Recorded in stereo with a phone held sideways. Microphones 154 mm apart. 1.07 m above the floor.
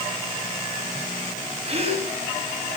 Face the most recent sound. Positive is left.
turn(degrees=-40)  # may be behind; listen again after turning